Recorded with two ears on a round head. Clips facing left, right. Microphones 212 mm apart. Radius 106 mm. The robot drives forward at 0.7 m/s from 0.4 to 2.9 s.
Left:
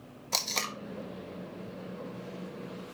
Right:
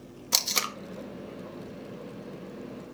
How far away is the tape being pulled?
About 0.7 m.